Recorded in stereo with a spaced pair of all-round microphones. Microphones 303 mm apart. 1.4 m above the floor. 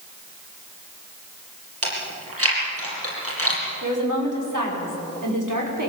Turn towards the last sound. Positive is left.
turn(degrees=-85)